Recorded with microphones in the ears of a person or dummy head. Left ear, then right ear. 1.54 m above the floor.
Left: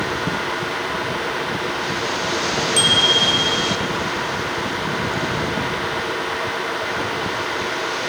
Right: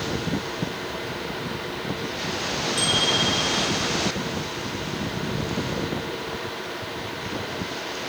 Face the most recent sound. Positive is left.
turn(degrees=65)  # may be behind; listen again after turning